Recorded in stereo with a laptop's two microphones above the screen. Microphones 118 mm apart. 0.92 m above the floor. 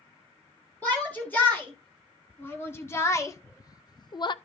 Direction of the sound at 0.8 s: 15° left (ahead or behind).